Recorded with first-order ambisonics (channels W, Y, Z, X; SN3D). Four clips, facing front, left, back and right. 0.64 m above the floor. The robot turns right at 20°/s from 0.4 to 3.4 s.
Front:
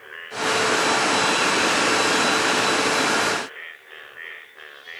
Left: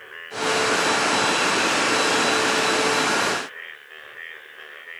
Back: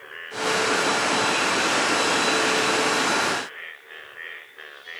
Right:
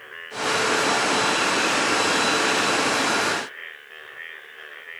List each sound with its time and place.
Only background noise.